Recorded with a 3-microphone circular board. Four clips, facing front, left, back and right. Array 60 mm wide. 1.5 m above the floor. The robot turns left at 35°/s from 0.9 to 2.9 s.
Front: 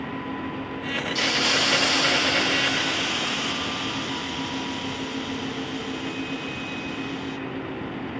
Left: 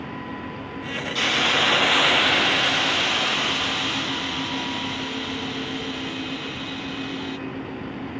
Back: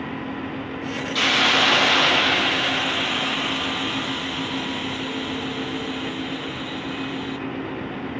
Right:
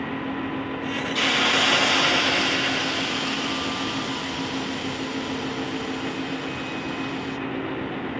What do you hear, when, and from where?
1.1 s a hiss: straight behind, 0.6 m; by 7.4 s 120° left, 0.6 m